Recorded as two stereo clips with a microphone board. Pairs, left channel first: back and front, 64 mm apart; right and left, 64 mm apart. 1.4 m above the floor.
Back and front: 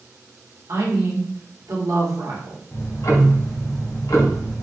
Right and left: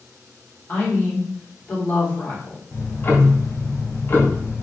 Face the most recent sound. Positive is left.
turn(degrees=-145)